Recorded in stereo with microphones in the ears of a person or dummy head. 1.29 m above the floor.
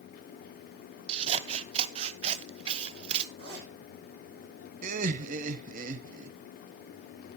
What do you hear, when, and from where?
1.1 s scissors: 35° right (ahead or behind), 0.7 m
3.4 s a zipper: 85° right, 5.5 m
4.8 s laughter: 50° right (ahead or behind), 0.9 m